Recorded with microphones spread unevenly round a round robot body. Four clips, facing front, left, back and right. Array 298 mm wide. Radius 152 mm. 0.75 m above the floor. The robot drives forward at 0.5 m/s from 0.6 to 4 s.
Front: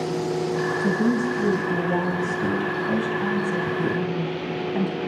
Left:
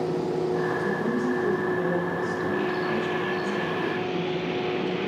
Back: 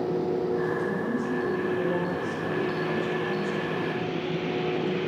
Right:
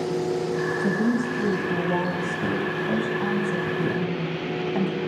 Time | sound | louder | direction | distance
0.8 | a woman speaking | right 2 dB, front 6 dB | 35° right | 7.5 m